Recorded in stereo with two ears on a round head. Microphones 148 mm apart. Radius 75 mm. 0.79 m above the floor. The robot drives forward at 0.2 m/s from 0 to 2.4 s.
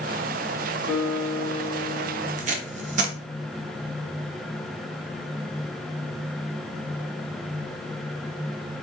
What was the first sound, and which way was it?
A guitar, 30° left (ahead or behind).